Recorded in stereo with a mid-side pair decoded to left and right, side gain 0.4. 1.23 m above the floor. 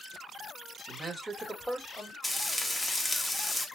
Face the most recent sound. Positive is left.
turn(degrees=15)